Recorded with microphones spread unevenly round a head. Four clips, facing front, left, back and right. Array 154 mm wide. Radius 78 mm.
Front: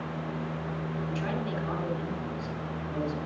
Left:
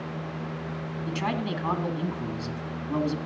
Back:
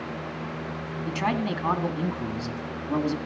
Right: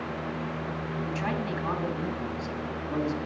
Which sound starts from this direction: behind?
A man speaking, at 1.1 s.